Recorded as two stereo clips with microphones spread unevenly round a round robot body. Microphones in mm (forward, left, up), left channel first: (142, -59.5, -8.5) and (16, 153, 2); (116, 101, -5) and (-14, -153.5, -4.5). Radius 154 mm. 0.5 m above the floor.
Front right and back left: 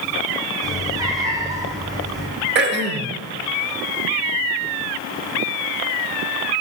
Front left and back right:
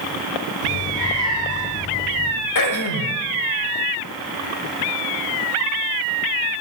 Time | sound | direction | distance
0.6 | a cat meowing | 45° left | 3.5 m
2.5 | throat clearing | 75° left | 1.0 m